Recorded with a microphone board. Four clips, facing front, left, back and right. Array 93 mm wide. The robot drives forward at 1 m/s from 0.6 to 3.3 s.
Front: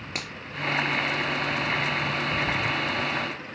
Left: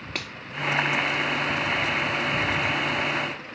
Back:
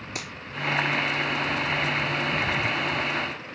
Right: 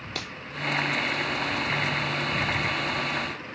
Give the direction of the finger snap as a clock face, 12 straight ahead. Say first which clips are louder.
Left 2 dB, front 1 dB; 10 o'clock.